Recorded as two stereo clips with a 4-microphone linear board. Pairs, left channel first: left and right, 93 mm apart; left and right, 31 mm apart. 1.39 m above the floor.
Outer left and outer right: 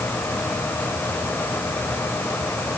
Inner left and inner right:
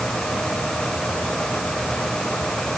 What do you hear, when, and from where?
Only background noise.